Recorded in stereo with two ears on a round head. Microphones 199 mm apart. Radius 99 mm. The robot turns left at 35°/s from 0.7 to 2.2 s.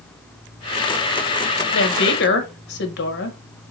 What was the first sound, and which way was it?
A woman speaking, 55° left (ahead or behind).